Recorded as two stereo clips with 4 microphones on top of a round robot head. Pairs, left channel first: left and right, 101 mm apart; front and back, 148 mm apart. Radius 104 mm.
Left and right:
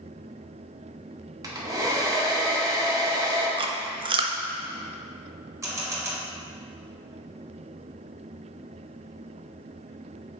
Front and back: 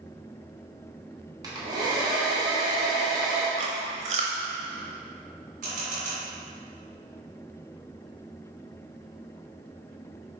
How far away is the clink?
No clink in this recording.